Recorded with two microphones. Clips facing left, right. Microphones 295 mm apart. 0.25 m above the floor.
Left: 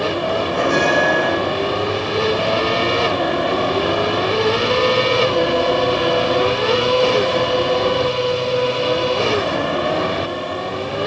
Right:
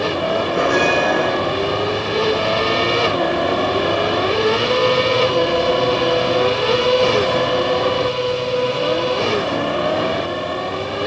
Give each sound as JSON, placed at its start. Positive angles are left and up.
{"t": 0.5, "sound": "a bell", "side_deg": -5, "distance_m": 4.0}